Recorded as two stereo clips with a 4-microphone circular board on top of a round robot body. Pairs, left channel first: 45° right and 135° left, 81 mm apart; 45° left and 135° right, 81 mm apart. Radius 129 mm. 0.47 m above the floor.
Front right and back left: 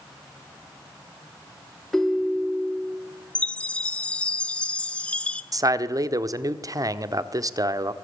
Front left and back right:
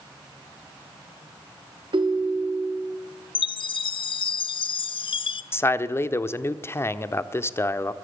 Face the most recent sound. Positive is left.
turn(degrees=100)